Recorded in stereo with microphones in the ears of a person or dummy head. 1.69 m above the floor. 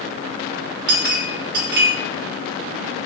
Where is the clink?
55° right (ahead or behind), 1.1 m.